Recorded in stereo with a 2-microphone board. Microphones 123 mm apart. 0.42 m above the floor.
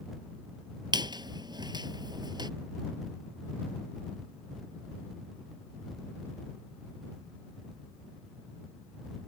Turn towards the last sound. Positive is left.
turn(degrees=-35)  # may be behind; listen again after turning